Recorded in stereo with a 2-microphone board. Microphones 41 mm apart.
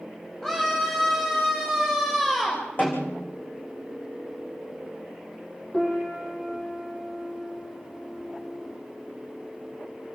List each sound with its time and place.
0.4 s a scream: 15° left (ahead or behind), 6.5 m
2.8 s a snare drum: 40° left (ahead or behind), 7.5 m
5.7 s a piano: 25° left (ahead or behind), 6 m